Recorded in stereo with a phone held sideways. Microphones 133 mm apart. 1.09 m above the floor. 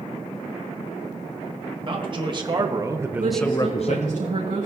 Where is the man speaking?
40° right (ahead or behind), 2 m; by 4.2 s 60° left (ahead or behind), 0.9 m.